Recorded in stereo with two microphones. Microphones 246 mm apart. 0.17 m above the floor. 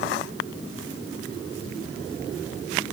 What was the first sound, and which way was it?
Only background noise.